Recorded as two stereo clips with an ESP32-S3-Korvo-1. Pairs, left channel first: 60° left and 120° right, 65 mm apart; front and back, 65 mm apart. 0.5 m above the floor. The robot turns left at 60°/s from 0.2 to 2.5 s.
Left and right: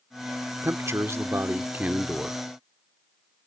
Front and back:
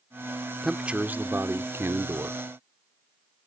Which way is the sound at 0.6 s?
100° right.